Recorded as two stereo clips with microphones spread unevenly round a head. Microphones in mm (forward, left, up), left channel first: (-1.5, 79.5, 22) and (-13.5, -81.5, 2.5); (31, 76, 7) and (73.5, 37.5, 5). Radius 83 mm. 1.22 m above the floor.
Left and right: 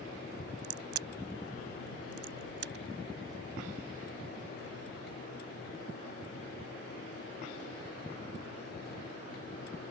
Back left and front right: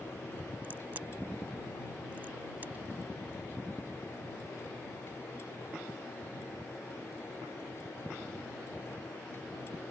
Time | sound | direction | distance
0.6 | a crack | 115° right | ?